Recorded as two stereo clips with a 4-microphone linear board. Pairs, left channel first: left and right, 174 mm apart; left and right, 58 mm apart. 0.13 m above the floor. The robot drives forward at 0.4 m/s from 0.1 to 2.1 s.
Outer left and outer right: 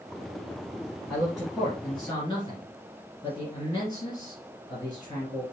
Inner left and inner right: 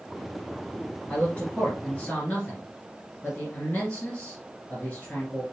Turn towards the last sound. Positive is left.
turn(degrees=25)  # may be behind; listen again after turning